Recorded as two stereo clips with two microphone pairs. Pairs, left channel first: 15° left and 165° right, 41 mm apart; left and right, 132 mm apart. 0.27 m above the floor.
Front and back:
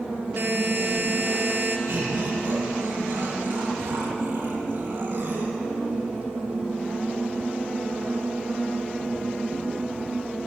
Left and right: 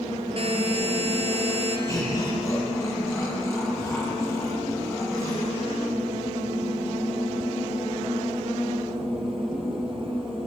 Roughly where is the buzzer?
Behind right.